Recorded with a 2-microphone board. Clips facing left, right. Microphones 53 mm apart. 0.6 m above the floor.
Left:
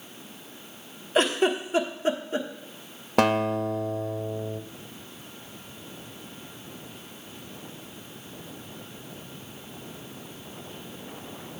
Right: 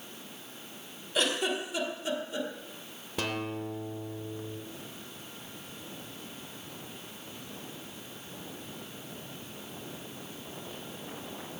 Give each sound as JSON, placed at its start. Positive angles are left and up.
{"t": 1.1, "sound": "a giggle", "side_deg": 40, "distance_m": 1.1}
{"t": 3.2, "sound": "a guitar", "side_deg": 60, "distance_m": 0.6}